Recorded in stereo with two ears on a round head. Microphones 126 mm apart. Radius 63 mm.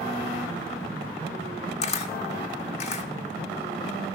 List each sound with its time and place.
1.8 s a camera shutter: 45° left (ahead or behind), 0.8 m